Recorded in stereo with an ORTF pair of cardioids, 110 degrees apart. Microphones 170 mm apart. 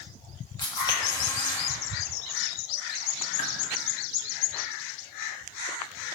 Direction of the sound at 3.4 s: 50° left.